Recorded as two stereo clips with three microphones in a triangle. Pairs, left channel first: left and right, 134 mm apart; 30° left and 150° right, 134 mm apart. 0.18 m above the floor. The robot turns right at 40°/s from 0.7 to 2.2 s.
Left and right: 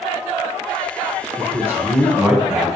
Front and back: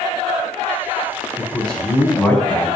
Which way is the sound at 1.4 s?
55° right.